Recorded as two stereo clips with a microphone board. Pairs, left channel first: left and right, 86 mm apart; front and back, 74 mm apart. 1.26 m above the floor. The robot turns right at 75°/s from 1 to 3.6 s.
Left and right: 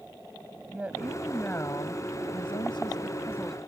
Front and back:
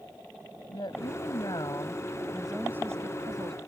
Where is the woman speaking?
15° right; by 3.6 s straight behind.